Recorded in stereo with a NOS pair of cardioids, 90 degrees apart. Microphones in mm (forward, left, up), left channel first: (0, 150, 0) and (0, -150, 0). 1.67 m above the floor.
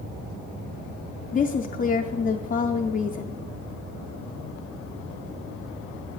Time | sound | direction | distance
1.3 | a woman speaking | 30° left | 0.5 m